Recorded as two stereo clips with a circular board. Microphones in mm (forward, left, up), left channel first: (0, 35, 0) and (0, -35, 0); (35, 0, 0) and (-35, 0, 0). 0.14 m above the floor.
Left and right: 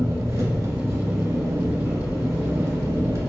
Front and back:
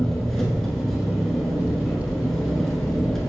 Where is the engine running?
80° right, 0.9 m.